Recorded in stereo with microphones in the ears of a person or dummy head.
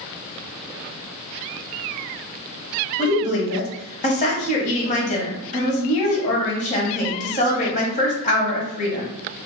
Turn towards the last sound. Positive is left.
turn(degrees=40)  # may be behind; listen again after turning